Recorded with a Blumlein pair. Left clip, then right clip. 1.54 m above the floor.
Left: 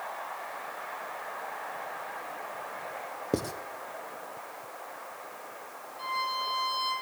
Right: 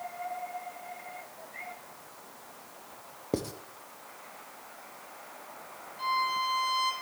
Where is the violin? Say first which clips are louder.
Right 3 dB; 5° right, 2.5 m.